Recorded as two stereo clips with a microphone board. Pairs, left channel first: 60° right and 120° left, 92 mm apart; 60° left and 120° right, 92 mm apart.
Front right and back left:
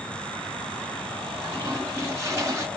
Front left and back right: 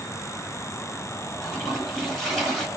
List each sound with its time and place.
1.4 s a toilet flushing: 145° left, 1.7 m